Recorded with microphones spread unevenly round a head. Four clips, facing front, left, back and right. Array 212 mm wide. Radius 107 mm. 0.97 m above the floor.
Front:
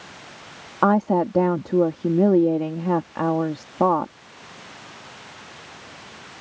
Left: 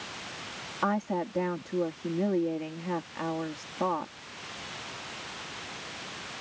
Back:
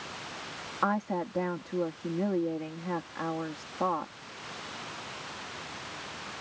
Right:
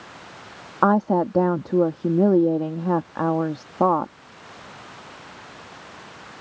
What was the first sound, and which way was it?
A woman speaking, 40° right.